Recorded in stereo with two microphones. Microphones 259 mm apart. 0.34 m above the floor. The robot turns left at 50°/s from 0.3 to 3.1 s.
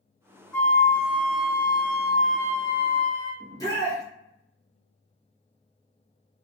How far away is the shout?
About 1.0 m.